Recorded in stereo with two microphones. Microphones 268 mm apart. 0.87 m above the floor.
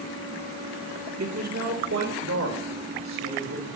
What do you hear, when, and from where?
1.2 s a man speaking: 70° right (ahead or behind), 2 m; by 3.7 s 80° right, 5 m